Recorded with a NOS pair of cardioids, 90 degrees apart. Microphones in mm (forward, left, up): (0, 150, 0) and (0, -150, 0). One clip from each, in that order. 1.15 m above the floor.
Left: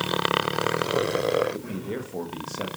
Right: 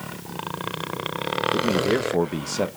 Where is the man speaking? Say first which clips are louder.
Right 12 dB; 50° right, 1.1 m.